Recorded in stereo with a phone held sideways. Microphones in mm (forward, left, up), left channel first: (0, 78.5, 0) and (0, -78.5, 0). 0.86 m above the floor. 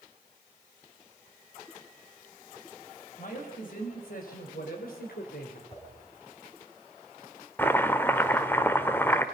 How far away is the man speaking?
About 5.5 m.